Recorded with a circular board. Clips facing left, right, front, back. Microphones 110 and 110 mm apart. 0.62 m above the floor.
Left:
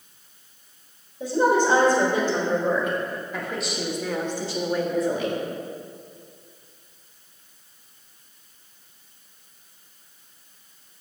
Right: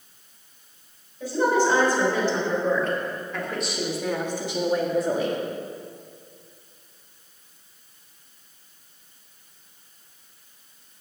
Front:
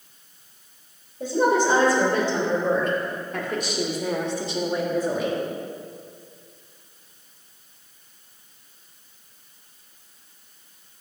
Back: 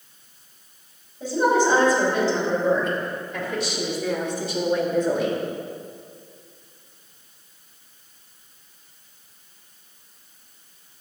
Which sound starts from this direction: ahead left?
A woman speaking, at 1.2 s.